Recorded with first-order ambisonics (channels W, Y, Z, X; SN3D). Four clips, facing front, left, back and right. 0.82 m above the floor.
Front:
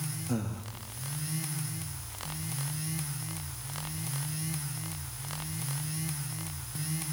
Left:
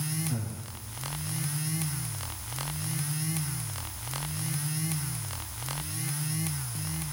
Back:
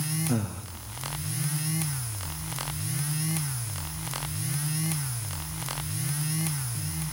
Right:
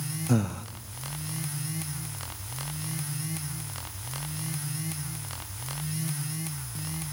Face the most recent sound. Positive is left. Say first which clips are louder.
# right 9 dB, back 4 dB
turn(degrees=-105)